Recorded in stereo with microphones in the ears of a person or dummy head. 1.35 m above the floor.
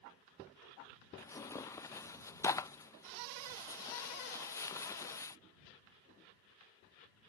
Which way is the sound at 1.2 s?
15° left (ahead or behind).